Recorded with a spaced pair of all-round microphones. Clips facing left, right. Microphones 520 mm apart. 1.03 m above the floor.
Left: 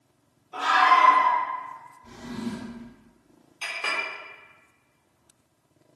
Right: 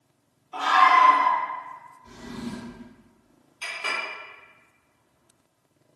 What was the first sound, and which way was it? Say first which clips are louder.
A scream: right 1 dB; 25° right (ahead or behind).